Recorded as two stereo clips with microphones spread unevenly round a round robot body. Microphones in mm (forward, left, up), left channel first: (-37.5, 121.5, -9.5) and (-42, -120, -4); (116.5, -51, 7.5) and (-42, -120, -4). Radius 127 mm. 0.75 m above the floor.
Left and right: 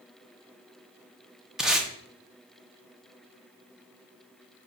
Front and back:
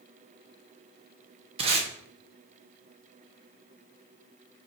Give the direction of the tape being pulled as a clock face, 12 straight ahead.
6 o'clock.